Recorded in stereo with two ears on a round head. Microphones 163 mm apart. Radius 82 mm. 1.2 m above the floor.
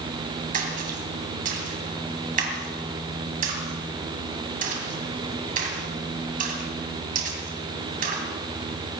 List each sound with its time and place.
0.5 s a splash: 45° right (ahead or behind), 3 m